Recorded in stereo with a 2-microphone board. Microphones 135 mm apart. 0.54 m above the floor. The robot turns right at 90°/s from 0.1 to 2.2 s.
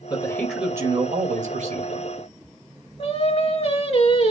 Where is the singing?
45° left (ahead or behind), 2.5 m.